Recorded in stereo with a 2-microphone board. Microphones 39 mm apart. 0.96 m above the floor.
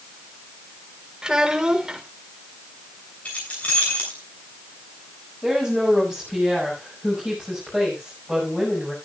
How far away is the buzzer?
No buzzer in this recording.